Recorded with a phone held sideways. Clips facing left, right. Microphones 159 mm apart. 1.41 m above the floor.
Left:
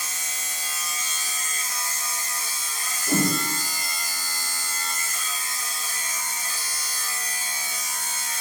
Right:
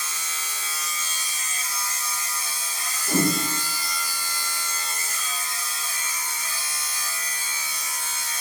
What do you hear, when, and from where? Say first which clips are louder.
0.0 s a machine running: right 1 dB; 45° left (ahead or behind), 0.8 m
3.1 s a whoosh: right 1 dB; 15° left (ahead or behind), 1.0 m